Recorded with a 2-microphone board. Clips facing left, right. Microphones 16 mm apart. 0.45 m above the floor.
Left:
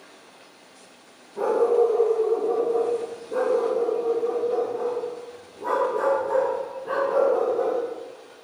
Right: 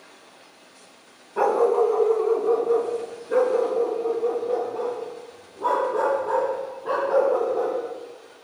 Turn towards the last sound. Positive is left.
turn(degrees=-40)  # may be behind; listen again after turning